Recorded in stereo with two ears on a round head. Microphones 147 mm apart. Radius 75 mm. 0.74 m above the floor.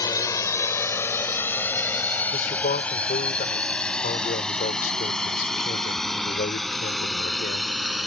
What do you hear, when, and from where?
0.0 s a drone: 20° left (ahead or behind); by 8.1 s centre (ahead or behind)
2.3 s a man speaking: 60° left (ahead or behind)